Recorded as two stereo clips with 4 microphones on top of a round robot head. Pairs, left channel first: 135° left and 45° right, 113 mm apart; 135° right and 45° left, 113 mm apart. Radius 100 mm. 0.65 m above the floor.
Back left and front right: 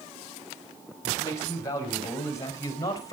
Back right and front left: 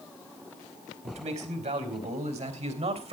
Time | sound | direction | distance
1.0 | a man speaking | 70° left | 4 m